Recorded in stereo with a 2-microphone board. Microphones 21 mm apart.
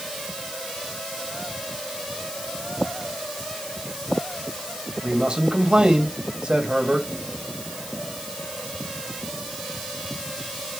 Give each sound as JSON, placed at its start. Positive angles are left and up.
{"t": 5.0, "sound": "a man speaking", "side_deg": -40, "distance_m": 2.5}